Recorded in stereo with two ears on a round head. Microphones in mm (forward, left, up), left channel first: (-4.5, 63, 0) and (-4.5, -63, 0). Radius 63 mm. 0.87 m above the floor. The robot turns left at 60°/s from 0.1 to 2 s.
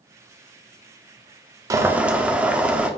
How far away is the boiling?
About 0.5 m.